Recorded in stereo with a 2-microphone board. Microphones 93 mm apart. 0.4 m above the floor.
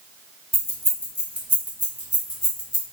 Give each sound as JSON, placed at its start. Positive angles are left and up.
{"t": 0.5, "sound": "keys jangling", "side_deg": -25, "distance_m": 1.0}